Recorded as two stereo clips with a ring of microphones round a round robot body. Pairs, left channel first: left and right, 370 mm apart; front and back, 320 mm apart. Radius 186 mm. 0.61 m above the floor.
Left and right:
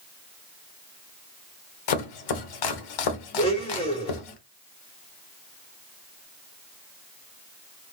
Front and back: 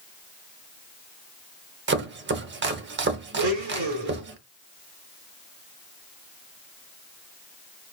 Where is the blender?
165° left, 2 m.